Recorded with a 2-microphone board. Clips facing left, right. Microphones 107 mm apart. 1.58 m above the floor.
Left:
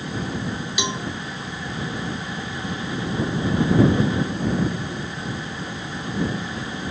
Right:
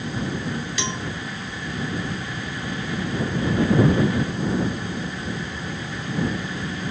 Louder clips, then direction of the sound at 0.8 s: Left 2 dB; 15° left (ahead or behind).